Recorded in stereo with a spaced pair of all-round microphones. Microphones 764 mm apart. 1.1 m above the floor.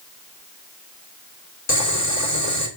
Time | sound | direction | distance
1.7 | boiling | 20° left (ahead or behind) | 3.5 m